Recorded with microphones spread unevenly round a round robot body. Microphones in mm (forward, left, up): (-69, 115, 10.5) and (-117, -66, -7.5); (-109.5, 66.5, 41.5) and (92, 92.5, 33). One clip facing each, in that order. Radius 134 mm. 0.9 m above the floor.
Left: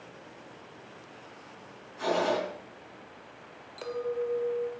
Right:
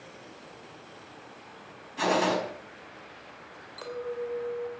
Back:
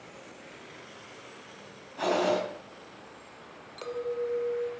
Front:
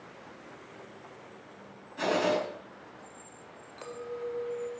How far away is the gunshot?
About 4.5 m.